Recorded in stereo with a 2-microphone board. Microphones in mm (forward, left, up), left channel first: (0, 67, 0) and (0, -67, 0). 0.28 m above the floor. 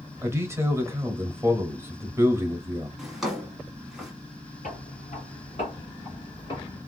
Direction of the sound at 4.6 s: 65° left (ahead or behind).